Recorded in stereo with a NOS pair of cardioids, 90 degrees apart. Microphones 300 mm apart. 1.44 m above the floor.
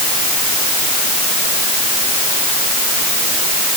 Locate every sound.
Only background noise.